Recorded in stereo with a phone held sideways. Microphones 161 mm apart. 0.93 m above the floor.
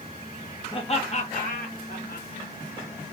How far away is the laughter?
About 0.9 m.